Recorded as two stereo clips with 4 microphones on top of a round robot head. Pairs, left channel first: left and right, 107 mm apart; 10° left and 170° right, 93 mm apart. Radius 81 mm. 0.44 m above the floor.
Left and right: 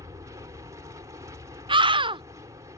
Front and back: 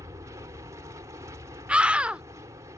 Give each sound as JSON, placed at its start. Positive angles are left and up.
{"t": 0.0, "sound": "an aircraft", "azimuth_deg": -135}
{"t": 1.7, "sound": "a scream", "azimuth_deg": -95}